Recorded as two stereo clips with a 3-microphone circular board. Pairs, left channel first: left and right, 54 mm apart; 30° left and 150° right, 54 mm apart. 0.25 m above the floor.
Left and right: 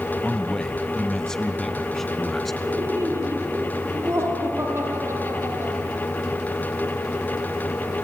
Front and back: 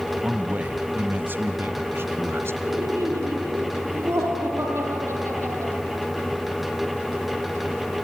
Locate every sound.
0.2 s a man speaking: 155° left, 1.5 m; by 2.5 s 175° left, 2.5 m
2.6 s laughter: 120° right, 6.5 m